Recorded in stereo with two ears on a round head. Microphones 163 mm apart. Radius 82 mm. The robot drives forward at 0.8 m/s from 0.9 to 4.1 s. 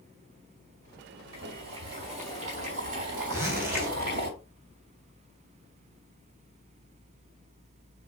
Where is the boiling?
30° right (ahead or behind), 3.5 m; by 4.3 s 55° right (ahead or behind), 2 m.